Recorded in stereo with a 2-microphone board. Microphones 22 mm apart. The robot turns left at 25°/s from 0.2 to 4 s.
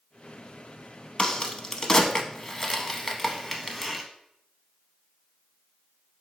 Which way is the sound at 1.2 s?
35° left (ahead or behind).